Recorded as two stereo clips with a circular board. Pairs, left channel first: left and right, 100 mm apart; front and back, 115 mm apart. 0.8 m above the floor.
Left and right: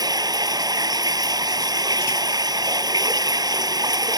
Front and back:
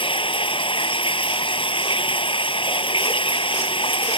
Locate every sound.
0.0 s running water: 40° right